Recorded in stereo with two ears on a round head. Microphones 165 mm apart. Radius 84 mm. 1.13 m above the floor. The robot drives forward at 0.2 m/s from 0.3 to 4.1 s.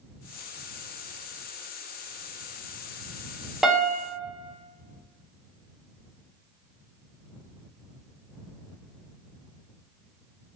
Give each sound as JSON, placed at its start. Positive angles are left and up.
{"t": 3.6, "sound": "a piano", "side_deg": 0, "distance_m": 0.6}